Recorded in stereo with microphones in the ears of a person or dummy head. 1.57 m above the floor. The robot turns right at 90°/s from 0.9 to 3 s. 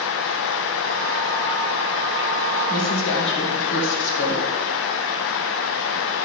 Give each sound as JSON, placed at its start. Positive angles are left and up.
{"t": 2.7, "sound": "a woman speaking", "side_deg": 40, "distance_m": 2.0}